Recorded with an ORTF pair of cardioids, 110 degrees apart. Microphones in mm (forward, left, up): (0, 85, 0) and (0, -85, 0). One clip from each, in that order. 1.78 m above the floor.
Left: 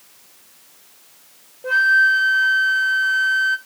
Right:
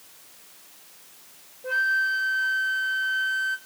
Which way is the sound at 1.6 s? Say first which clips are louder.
Left 9 dB; 35° left.